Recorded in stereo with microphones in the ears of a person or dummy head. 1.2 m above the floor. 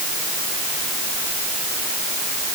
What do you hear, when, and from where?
Only background noise.